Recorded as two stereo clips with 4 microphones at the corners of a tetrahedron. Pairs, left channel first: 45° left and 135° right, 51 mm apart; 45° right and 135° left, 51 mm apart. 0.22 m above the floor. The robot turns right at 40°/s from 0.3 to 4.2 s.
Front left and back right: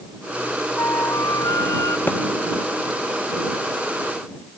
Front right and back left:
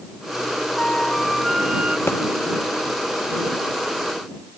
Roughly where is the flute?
Ahead.